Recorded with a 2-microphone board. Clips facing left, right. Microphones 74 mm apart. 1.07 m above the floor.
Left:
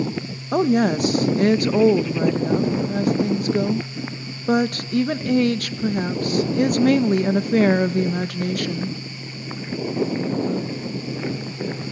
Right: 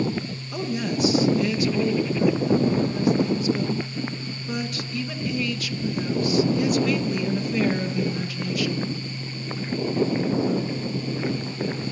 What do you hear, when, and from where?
0.5 s a woman speaking: 55° left (ahead or behind), 1.3 m